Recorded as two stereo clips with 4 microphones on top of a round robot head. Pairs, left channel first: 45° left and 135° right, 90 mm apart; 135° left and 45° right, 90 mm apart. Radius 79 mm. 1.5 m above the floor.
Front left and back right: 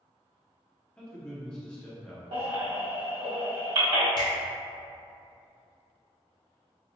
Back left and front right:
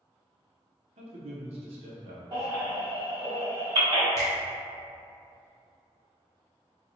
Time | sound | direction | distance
1.0 | a man speaking | 30° right | 0.7 m
2.3 | a baby crying | 95° right | 1.4 m
4.2 | a finger snap | 80° left | 0.5 m